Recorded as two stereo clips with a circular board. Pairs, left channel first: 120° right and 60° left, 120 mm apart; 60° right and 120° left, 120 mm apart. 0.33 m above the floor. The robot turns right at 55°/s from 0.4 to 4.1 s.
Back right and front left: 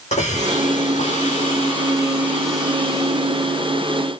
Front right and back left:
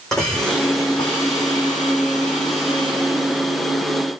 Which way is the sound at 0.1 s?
145° right.